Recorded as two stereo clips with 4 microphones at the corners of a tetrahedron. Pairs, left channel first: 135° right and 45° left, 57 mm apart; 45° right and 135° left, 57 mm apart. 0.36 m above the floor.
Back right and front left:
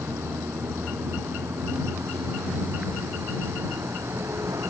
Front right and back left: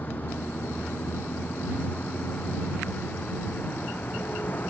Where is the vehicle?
10° left.